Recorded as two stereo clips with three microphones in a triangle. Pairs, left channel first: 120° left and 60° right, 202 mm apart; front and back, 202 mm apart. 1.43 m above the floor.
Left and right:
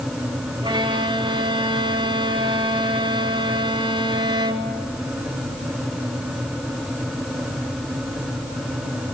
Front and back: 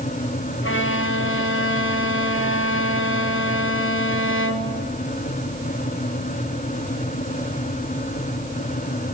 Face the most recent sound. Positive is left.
turn(degrees=5)